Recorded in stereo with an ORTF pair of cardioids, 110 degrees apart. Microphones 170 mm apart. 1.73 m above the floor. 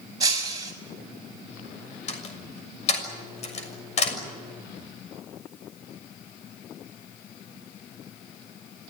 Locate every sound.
0.2 s breaking glass: 20° right, 5.5 m
2.1 s a door slam: 40° left, 6.5 m